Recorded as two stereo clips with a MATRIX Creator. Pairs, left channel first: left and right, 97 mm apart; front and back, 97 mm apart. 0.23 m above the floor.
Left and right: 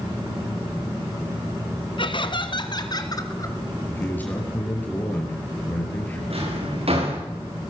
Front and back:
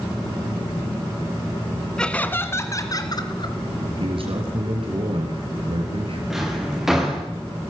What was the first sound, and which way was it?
Laughter, 80° left.